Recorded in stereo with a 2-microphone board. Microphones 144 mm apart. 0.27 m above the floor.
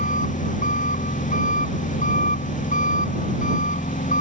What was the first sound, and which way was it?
An engine running, 60° left (ahead or behind).